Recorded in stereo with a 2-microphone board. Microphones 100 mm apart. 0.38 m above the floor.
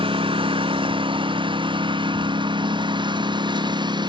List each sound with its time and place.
0.0 s a lawn mower: 60° right (ahead or behind); by 4.1 s 50° right (ahead or behind)